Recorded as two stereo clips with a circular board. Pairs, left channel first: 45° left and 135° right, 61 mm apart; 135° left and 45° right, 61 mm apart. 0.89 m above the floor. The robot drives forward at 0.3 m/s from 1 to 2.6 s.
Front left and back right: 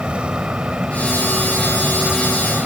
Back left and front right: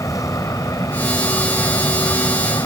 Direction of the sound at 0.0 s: 155° left.